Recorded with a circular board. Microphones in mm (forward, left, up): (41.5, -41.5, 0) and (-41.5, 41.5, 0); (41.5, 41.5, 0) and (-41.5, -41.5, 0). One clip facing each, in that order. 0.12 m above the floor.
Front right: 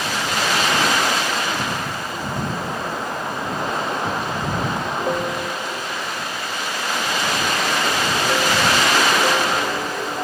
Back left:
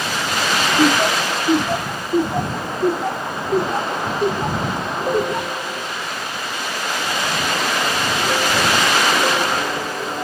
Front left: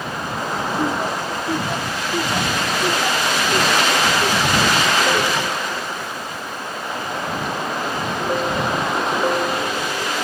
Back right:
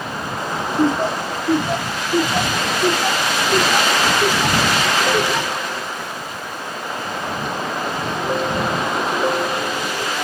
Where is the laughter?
165° left; by 5.7 s 155° left.